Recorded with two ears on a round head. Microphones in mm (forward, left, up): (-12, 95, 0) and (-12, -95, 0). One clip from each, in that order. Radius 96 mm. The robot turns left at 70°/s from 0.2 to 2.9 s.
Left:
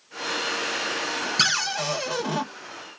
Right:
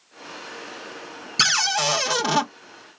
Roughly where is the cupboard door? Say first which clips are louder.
Right 5 dB; ahead.